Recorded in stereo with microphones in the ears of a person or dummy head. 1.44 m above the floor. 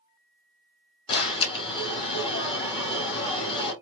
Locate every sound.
1.1 s an alarm: 25° left (ahead or behind), 1.4 m